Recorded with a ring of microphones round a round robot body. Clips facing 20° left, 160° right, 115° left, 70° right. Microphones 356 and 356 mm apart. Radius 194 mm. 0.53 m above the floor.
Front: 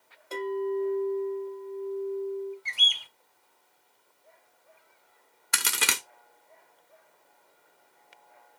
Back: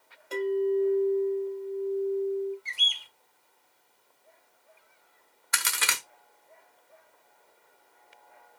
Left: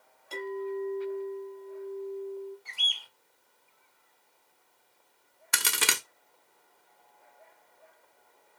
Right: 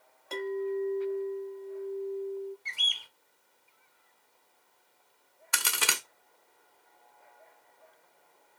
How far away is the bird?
About 0.6 m.